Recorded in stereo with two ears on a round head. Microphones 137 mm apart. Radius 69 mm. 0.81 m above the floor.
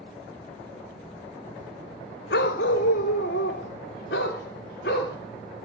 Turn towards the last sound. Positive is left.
turn(degrees=70)  # may be behind; listen again after turning